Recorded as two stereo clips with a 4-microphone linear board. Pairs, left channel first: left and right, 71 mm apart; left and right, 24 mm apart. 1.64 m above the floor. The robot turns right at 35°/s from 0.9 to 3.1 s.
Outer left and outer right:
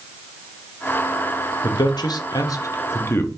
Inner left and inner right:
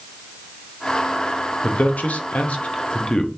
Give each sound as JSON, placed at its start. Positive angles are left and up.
{"t": 1.6, "sound": "a man speaking", "side_deg": 80, "distance_m": 0.9}